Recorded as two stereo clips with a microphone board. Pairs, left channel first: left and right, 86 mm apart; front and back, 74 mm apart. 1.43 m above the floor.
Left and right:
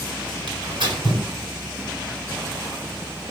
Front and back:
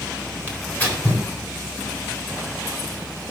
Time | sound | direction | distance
0.5 | tearing paper | 70° right | 4 m